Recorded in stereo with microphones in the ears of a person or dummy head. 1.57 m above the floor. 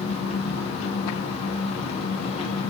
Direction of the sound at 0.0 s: 30° left (ahead or behind).